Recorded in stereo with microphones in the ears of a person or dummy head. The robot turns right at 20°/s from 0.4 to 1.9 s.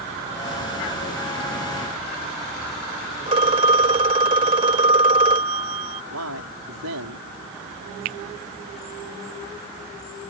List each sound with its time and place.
3.3 s a phone ringing: 30° right (ahead or behind)
6.1 s a man speaking: 85° right
8.1 s a finger snap: 45° right (ahead or behind)